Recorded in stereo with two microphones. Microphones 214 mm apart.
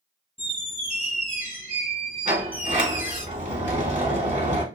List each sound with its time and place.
0.4 s a squeak: 40° right (ahead or behind), 0.8 m
2.2 s a sliding door: 35° right (ahead or behind), 0.9 m